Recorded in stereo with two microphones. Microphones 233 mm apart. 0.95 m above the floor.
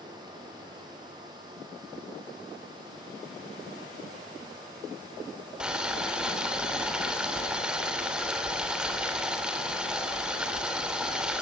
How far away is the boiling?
About 3 m.